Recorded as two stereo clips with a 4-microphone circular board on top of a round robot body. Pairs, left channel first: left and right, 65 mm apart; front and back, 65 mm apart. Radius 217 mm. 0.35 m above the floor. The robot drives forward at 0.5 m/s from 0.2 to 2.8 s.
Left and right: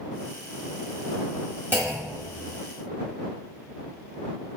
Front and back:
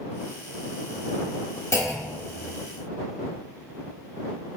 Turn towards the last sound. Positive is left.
turn(degrees=-55)